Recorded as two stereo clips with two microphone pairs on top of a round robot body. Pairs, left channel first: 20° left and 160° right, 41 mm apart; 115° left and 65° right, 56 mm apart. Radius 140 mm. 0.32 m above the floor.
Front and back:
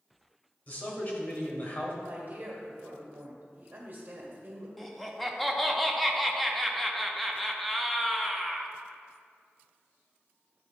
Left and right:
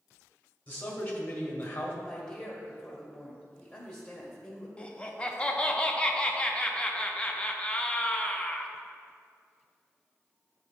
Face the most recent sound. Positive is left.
turn(degrees=120)